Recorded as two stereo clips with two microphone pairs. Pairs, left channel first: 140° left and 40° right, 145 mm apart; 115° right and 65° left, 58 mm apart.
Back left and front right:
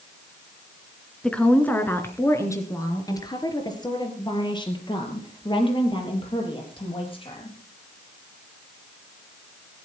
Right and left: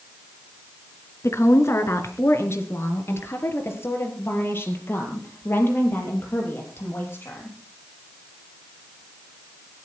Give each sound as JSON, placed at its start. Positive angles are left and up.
{"t": 1.2, "sound": "a woman speaking", "azimuth_deg": -140, "distance_m": 2.5}